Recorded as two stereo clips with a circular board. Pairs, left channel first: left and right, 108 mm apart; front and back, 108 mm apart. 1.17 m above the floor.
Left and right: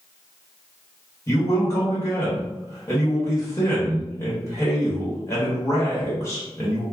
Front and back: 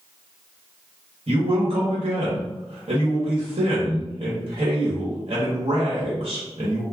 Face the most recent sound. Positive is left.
turn(degrees=155)